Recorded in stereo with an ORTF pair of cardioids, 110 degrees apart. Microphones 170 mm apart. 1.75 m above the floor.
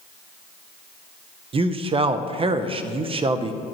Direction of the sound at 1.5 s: 35° right.